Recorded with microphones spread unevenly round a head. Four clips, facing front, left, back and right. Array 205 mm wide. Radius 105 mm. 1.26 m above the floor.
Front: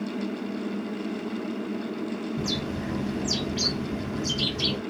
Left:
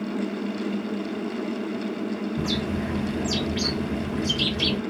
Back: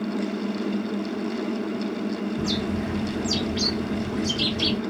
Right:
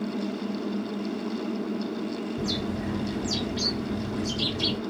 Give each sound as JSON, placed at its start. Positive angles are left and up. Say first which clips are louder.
{"t": 2.4, "sound": "a bird", "louder": "left 3 dB, back 4 dB", "azimuth_deg": 75, "distance_m": 0.9}